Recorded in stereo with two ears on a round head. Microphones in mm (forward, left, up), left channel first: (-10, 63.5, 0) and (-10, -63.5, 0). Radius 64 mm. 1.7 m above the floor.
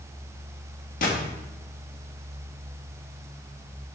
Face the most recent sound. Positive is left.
turn(degrees=60)  # may be behind; listen again after turning